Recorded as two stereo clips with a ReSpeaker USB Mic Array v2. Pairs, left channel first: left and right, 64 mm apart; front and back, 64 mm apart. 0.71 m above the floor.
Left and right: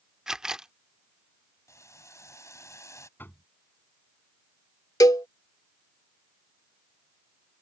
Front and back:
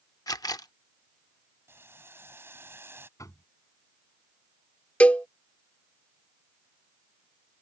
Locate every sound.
0.3 s a camera shutter: 10° right
1.7 s boiling: 130° left
3.2 s knocking: 35° left
5.0 s a cowbell: 70° left